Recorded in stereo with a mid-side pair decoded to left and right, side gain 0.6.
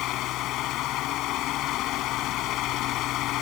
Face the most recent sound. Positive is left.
turn(degrees=65)